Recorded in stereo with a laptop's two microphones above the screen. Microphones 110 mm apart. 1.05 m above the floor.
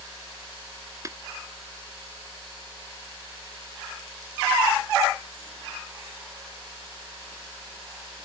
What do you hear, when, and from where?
1.1 s tapping: 30° right (ahead or behind)